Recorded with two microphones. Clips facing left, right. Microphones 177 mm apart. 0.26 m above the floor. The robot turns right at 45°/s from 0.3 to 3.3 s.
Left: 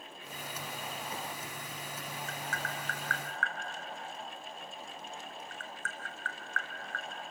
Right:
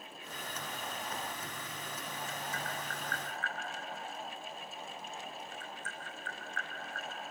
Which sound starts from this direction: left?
Tapping, at 2.3 s.